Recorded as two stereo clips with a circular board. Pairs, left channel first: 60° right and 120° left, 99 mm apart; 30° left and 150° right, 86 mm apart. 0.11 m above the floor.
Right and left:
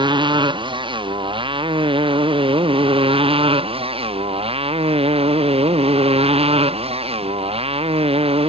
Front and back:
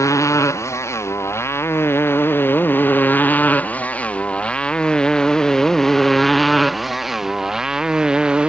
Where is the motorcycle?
85° left; by 8.5 s 130° left.